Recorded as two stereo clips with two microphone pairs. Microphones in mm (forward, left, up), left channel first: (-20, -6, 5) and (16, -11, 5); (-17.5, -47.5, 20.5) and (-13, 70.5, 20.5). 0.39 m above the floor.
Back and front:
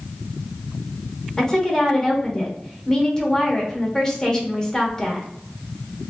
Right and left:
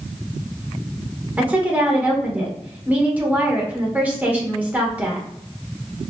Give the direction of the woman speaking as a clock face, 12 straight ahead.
7 o'clock.